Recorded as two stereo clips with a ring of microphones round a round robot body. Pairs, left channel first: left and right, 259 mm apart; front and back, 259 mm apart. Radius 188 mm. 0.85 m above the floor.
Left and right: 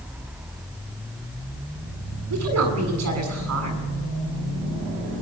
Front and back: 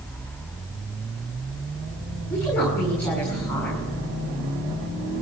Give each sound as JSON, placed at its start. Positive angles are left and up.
{"t": 2.3, "sound": "a woman speaking", "azimuth_deg": -85, "distance_m": 8.0}